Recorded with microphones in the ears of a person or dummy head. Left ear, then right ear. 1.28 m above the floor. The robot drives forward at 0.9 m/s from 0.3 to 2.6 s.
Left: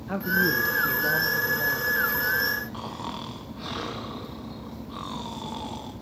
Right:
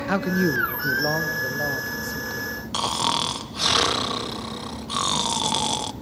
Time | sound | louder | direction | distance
0.1 | a man speaking | even | 65° right (ahead or behind) | 1.0 m
2.7 | snoring | right 12 dB | 75° right (ahead or behind) | 1.0 m